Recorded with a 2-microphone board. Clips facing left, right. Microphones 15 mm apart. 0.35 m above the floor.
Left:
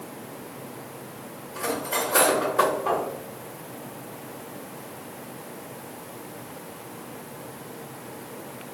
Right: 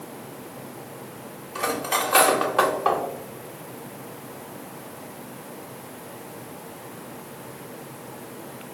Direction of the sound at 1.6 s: 45° right (ahead or behind).